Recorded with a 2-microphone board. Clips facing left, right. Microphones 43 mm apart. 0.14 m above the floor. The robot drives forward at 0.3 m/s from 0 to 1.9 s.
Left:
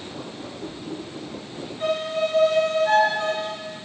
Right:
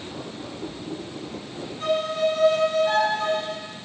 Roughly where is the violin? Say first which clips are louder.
Right 1 dB; left.